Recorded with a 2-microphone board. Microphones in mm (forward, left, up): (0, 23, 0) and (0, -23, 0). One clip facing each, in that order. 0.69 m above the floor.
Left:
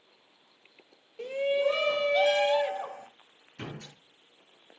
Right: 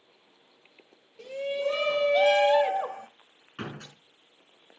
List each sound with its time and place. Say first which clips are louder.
1.2 s a shout: left 3 dB; 35° left (ahead or behind), 1.0 m; by 3.1 s 45° right (ahead or behind), 1.2 m
3.6 s a door slam: right 3 dB; 85° right, 5.5 m